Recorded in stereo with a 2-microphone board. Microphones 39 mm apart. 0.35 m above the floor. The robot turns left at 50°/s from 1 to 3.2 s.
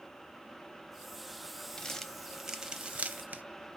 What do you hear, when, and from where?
1.8 s crumpling: 20° left (ahead or behind), 0.6 m; by 3.4 s 45° right (ahead or behind), 0.6 m